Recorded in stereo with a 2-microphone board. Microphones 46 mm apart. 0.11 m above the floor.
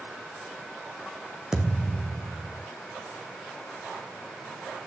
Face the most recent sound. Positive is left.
turn(degrees=-15)  # may be behind; listen again after turning